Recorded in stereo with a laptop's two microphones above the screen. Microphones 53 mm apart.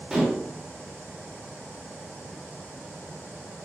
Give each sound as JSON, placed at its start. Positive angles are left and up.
{"t": 0.1, "sound": "dishes clattering", "side_deg": -10, "distance_m": 1.4}